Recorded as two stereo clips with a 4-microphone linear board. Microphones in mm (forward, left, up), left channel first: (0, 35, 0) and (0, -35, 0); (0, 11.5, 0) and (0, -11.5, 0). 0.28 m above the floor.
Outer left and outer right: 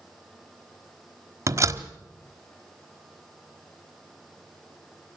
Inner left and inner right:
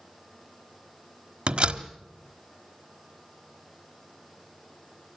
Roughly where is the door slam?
Right.